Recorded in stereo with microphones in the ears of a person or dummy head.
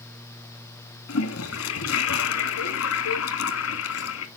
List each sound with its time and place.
1.1 s a toilet flushing: 75° left (ahead or behind), 2 m